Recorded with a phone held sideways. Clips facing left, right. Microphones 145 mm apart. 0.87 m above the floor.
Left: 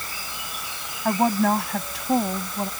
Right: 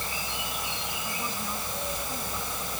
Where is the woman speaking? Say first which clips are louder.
Left 19 dB; 80° left.